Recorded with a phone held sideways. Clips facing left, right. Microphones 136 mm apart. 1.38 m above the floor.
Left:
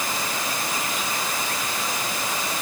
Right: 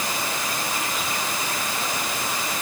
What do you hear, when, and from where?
Only background noise.